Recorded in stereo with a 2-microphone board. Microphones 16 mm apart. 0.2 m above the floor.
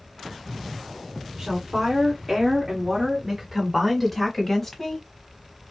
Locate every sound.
1.4 s a woman speaking: 50° right (ahead or behind), 2 m; by 5.0 s 25° left (ahead or behind), 1.3 m